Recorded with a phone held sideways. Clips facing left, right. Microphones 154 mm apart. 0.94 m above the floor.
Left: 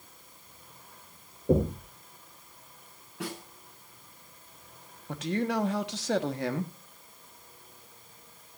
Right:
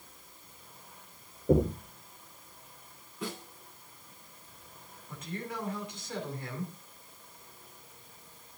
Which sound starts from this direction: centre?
Knocking, at 1.5 s.